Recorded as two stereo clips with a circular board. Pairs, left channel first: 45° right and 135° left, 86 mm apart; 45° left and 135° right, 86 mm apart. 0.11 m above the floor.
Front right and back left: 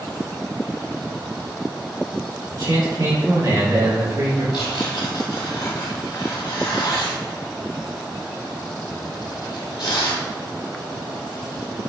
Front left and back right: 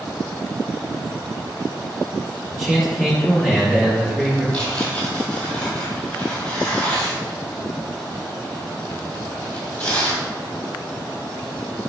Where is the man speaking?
135° left, 2 m.